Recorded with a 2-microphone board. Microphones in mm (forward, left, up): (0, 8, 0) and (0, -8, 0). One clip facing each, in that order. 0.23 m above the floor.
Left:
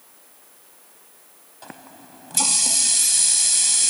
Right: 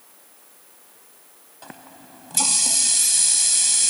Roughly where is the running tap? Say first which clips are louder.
Left 1 dB; centre.